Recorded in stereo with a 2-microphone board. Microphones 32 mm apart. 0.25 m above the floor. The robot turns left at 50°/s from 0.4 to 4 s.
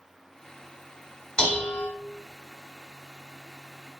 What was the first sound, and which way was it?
Dishes clattering, 30° left (ahead or behind).